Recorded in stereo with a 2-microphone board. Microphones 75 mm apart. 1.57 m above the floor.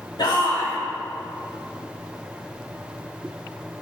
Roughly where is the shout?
Left.